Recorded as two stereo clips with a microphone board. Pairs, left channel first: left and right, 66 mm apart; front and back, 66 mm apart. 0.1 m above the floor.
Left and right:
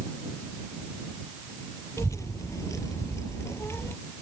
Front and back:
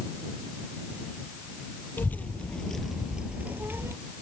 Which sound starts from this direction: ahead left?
A child speaking, at 2.0 s.